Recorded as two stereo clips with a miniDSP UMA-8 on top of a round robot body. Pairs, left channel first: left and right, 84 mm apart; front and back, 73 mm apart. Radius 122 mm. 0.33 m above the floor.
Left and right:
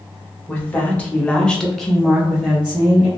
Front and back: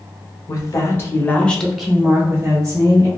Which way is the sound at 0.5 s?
25° left.